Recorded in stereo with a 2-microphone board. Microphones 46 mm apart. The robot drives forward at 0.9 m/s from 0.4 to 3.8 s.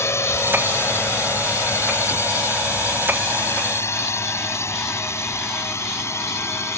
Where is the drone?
80° left; by 6.8 s 85° left.